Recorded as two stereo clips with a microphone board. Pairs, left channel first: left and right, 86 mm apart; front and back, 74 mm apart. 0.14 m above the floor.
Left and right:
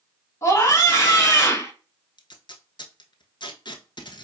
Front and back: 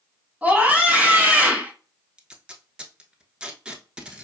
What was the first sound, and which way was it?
A scream, 120° left.